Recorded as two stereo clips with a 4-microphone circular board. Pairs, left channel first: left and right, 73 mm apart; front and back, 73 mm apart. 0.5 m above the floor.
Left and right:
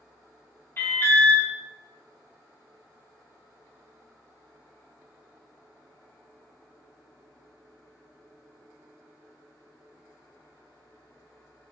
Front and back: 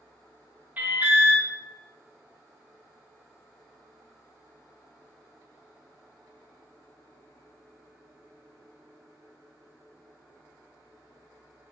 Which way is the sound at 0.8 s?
125° left.